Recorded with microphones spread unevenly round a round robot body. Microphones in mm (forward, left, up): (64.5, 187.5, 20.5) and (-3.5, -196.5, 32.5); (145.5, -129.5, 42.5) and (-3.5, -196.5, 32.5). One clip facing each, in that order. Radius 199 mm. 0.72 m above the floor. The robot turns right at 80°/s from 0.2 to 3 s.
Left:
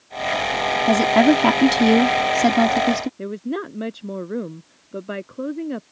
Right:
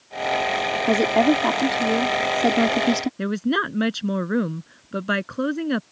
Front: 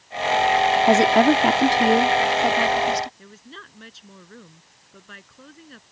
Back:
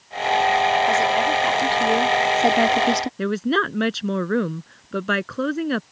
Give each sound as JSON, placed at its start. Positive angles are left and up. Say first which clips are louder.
{"t": 0.9, "sound": "a woman speaking", "louder": "left 3 dB, front 5 dB", "azimuth_deg": 10}
{"t": 3.2, "sound": "a woman speaking", "louder": "right 3 dB, back 24 dB", "azimuth_deg": -150}